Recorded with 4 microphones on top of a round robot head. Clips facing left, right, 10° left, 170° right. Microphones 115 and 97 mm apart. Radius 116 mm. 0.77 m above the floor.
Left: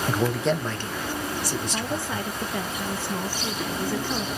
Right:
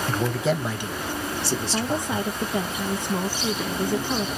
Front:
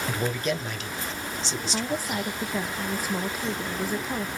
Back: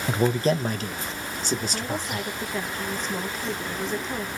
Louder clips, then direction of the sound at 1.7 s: Right 3 dB, front 1 dB; 55° right.